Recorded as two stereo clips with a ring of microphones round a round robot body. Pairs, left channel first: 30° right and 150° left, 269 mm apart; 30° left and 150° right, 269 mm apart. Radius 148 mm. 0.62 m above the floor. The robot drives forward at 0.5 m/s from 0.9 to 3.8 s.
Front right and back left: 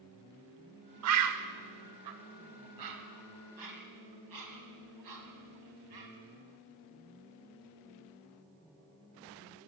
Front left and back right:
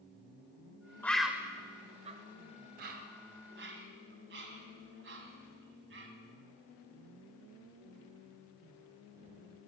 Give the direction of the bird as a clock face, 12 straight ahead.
8 o'clock.